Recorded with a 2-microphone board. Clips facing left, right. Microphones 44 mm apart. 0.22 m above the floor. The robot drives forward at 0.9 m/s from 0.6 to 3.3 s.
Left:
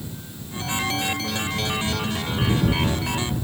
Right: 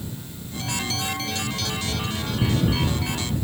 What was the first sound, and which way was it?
Only background noise.